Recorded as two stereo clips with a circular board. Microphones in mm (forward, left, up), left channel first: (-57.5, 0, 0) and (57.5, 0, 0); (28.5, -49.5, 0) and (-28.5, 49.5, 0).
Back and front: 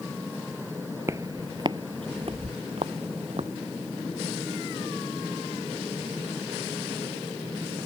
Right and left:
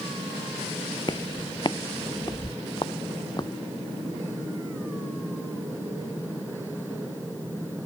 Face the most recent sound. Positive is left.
turn(degrees=-10)